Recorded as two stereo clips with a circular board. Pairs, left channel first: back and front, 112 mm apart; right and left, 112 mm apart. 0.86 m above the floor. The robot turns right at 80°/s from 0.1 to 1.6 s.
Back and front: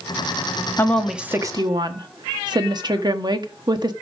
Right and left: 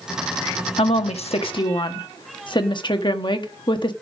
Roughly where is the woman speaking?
Behind right.